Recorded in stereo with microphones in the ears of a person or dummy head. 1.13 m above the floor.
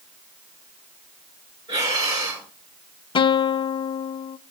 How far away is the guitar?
About 0.5 m.